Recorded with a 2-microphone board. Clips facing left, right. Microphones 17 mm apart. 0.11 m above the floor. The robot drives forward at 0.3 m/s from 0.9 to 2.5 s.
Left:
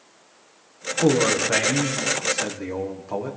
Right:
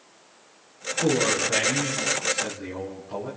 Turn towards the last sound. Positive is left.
turn(degrees=70)  # may be behind; listen again after turning